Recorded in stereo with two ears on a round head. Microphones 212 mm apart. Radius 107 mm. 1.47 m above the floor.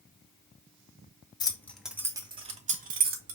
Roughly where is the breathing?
I don't hear breathing.